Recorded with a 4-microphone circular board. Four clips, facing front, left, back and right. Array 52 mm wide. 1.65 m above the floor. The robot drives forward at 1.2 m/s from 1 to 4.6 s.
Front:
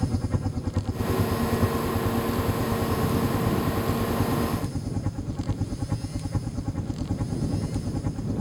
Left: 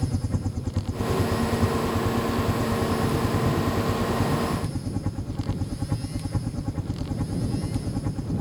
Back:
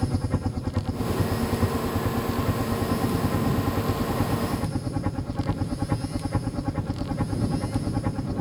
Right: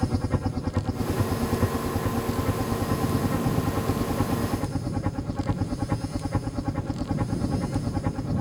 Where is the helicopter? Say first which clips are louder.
Right 3 dB, back 1 dB; 115° right; by 8.4 s 135° right.